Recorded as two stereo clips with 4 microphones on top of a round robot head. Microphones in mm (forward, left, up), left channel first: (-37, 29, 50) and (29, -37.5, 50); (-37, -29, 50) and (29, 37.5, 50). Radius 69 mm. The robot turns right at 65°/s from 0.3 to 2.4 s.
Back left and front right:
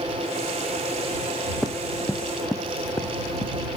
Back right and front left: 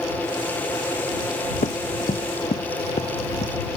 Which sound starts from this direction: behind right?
Running footsteps, at 1.6 s.